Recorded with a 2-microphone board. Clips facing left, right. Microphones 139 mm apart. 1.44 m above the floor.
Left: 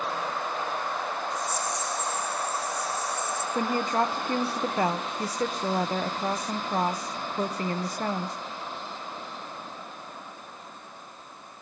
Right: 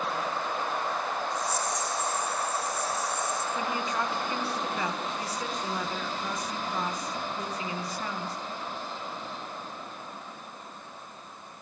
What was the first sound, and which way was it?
A rattle, 50° left (ahead or behind).